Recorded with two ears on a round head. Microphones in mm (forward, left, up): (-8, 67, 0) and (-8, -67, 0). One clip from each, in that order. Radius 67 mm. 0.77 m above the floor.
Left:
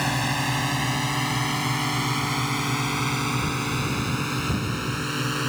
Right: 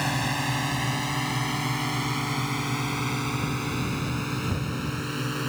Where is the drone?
Centre (ahead or behind); by 5.5 s 15° left (ahead or behind).